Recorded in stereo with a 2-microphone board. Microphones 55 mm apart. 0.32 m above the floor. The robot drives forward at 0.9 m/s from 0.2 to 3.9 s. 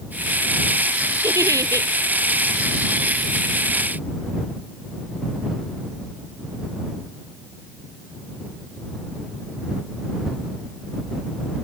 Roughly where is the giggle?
Right.